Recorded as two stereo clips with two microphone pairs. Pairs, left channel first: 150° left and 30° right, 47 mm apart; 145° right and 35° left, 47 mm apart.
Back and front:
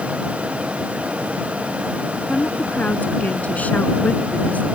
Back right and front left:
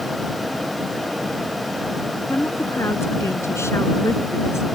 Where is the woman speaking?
150° right; by 4.7 s 155° right.